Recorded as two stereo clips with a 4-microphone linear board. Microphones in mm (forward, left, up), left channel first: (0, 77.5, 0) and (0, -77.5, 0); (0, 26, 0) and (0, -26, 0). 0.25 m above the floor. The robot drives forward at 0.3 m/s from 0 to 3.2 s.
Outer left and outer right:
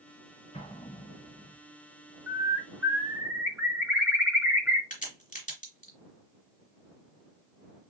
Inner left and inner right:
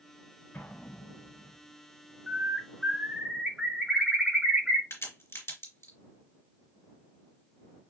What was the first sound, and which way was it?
An explosion, 40° left (ahead or behind).